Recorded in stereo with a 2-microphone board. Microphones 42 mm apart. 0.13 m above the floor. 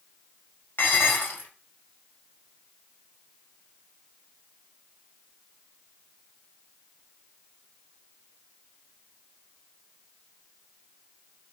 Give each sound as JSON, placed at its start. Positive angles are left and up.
{"t": 0.8, "sound": "dishes clattering", "side_deg": 60, "distance_m": 1.6}